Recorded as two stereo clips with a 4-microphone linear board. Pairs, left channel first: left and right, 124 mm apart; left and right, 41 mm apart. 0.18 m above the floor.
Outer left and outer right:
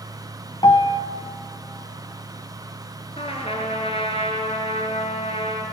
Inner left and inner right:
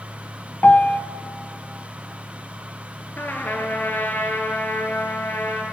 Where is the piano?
40° left (ahead or behind), 1.0 m.